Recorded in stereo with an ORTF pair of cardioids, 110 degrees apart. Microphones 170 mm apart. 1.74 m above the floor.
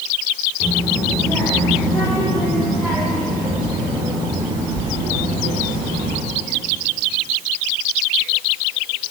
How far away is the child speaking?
About 3.5 m.